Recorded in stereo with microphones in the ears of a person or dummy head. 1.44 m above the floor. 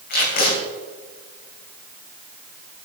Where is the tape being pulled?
55° left (ahead or behind), 3 m.